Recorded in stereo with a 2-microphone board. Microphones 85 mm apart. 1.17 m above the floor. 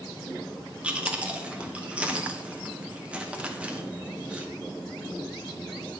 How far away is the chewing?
About 0.8 m.